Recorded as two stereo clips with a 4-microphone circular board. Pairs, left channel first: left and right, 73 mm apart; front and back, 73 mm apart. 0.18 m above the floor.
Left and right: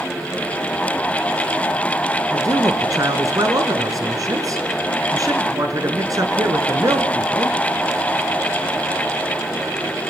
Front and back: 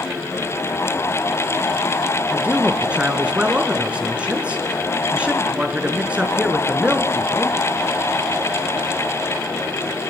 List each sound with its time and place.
2.3 s a man speaking: 110° right, 3 m